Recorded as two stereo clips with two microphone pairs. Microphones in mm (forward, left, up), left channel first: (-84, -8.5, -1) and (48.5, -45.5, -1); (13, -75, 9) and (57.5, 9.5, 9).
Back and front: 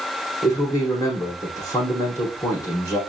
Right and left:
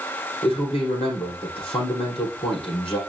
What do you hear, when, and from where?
0.4 s a man speaking: 130° right, 5.5 m